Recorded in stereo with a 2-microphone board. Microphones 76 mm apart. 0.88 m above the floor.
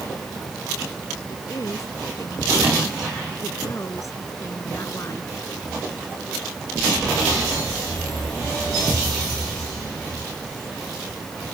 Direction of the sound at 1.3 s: 50° left (ahead or behind).